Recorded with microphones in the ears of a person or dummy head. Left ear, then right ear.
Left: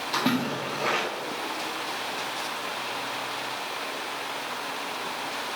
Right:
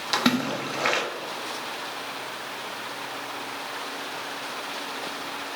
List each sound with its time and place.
0.1 s a splash: 60° right (ahead or behind), 1.6 m